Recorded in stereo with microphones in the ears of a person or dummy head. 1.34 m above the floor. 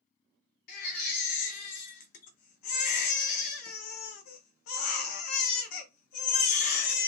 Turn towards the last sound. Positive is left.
turn(degrees=55)  # may be behind; listen again after turning